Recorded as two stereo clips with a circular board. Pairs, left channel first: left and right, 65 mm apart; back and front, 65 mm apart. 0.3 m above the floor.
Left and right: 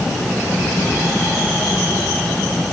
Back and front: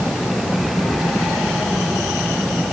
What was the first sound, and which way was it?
Only background noise.